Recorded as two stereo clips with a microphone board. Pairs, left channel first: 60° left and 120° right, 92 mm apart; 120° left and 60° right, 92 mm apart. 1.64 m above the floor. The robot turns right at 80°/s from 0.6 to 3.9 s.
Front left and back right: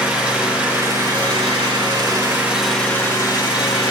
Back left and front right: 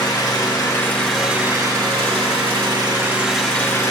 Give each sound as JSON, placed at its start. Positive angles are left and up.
{"t": 0.0, "sound": "an engine running", "azimuth_deg": 165, "distance_m": 2.5}